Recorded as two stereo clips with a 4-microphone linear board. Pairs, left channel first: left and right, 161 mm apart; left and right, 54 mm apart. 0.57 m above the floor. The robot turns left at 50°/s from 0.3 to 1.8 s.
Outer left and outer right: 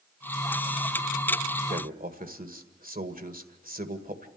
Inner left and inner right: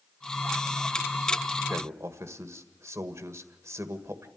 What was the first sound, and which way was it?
A man speaking, 65° right (ahead or behind).